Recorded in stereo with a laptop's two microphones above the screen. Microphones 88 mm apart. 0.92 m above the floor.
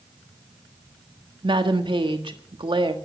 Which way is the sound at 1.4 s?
70° right (ahead or behind).